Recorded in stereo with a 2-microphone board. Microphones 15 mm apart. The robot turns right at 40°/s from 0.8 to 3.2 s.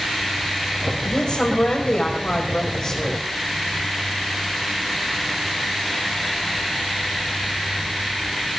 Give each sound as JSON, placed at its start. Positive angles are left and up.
{"t": 1.1, "sound": "a woman speaking", "azimuth_deg": 65, "distance_m": 5.0}